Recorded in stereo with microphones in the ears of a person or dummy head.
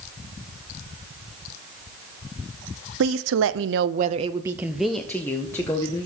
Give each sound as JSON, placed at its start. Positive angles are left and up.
{"t": 3.0, "sound": "a woman speaking", "side_deg": -70, "distance_m": 1.0}